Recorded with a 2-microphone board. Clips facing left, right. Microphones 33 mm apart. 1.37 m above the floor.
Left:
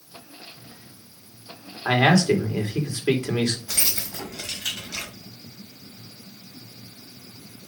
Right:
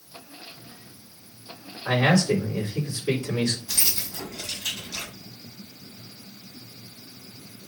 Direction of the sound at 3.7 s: 85° left.